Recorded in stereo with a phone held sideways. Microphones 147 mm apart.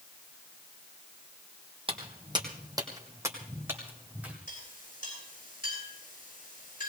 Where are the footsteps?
40° right (ahead or behind), 2 m; by 4.4 s 10° right (ahead or behind), 3 m.